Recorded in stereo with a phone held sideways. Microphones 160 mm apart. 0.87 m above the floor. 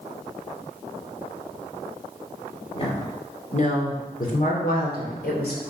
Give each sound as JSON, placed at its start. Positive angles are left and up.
{"t": 2.8, "sound": "a woman speaking", "side_deg": 35, "distance_m": 2.5}